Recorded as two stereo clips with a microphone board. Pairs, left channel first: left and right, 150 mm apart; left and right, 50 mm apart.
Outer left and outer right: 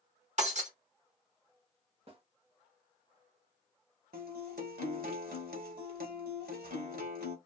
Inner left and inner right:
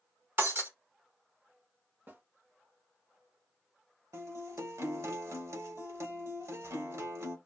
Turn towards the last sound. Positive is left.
turn(degrees=-75)  # may be behind; listen again after turning